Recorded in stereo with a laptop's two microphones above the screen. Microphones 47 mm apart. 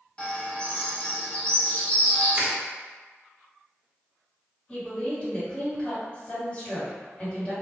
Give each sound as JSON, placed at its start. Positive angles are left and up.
{"t": 0.2, "sound": "a bird", "side_deg": 25, "distance_m": 0.5}
{"t": 2.3, "sound": "crushing", "side_deg": -30, "distance_m": 0.9}
{"t": 4.7, "sound": "a woman speaking", "side_deg": 25, "distance_m": 1.9}